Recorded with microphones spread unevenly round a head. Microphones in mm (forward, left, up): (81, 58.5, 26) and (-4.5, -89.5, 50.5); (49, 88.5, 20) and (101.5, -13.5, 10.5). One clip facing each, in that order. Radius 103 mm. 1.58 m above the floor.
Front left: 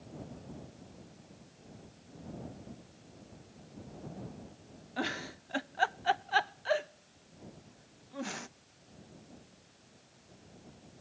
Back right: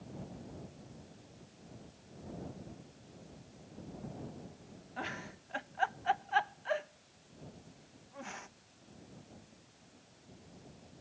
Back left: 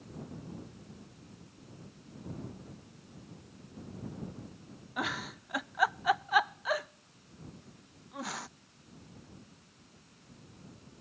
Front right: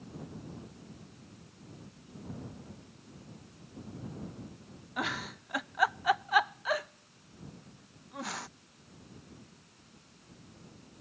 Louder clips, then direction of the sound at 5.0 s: Front left 7 dB, even; 40° left.